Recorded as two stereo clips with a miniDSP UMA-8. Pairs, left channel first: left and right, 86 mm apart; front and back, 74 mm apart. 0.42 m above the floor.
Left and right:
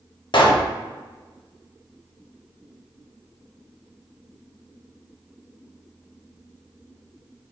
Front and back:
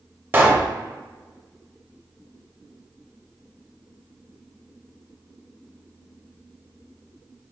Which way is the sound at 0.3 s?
120° left.